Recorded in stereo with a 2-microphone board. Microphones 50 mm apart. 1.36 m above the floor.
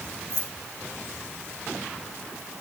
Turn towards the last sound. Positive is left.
turn(degrees=-75)  # may be behind; listen again after turning